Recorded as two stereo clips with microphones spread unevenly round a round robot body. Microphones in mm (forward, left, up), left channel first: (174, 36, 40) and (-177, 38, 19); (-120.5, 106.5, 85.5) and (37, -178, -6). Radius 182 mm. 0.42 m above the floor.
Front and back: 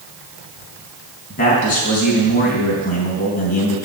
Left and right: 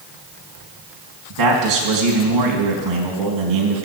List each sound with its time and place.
1.3 s a man speaking: 70° right, 3.5 m